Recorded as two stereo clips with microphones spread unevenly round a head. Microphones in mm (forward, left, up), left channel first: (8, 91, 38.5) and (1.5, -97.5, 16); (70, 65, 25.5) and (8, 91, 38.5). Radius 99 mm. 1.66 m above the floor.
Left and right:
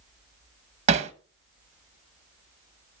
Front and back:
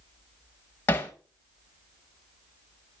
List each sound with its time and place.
0.9 s hammering: 85° right, 0.9 m